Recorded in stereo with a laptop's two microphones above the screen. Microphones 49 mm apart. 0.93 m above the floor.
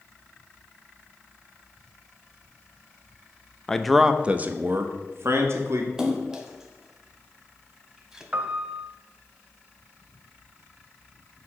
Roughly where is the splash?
Centre.